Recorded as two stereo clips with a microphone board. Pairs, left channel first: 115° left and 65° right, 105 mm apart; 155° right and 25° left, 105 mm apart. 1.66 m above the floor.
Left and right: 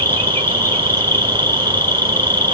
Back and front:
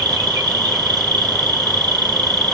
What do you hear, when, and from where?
0.0 s an insect: 50° left, 2 m